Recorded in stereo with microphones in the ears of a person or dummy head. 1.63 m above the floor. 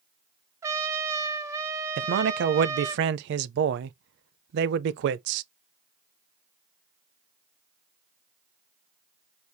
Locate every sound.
0.6 s a trumpet: 25° right (ahead or behind), 0.8 m
2.0 s a man speaking: 65° right (ahead or behind), 0.5 m